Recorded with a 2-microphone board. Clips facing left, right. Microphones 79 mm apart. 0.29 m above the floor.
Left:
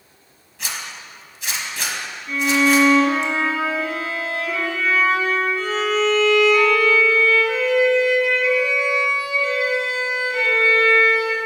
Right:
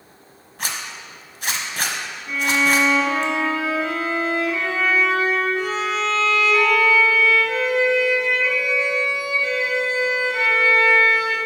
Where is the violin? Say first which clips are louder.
Left 3 dB; 15° right (ahead or behind), 2.0 m.